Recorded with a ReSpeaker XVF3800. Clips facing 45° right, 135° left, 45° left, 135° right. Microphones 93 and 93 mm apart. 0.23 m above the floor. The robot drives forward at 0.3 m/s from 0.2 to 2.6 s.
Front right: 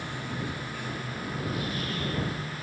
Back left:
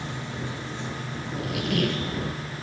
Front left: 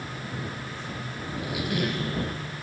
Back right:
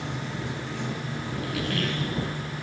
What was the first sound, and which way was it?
Running water, 155° right.